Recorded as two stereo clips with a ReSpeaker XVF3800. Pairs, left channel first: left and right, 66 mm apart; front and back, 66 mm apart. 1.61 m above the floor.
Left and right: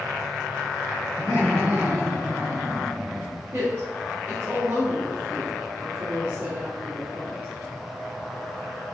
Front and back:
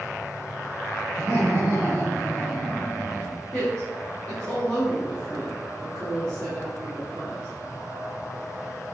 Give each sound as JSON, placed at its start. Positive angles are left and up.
{"t": 1.2, "sound": "laughter", "azimuth_deg": -125, "distance_m": 1.0}
{"t": 3.5, "sound": "a woman speaking", "azimuth_deg": -75, "distance_m": 1.5}